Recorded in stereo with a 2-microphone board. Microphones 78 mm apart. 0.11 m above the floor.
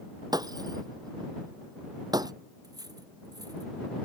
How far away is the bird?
I don't hear a bird.